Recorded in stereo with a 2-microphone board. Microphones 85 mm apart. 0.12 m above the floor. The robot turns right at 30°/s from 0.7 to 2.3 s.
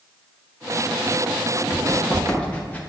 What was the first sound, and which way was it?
Running footsteps, 20° left (ahead or behind).